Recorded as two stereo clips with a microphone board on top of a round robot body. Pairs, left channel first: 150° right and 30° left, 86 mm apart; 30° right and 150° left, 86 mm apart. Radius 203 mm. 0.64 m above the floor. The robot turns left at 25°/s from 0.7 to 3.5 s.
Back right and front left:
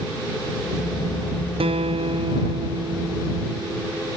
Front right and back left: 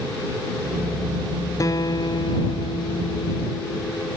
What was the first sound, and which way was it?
A guitar, 25° left.